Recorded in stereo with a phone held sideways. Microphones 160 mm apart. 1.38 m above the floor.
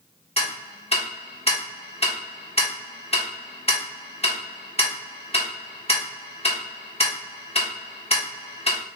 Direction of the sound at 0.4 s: 40° left (ahead or behind).